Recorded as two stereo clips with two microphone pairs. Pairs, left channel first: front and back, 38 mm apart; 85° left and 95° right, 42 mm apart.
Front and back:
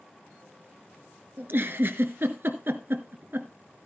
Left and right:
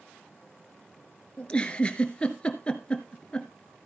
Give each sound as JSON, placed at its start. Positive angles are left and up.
{"t": 1.4, "sound": "a giggle", "azimuth_deg": 150, "distance_m": 1.2}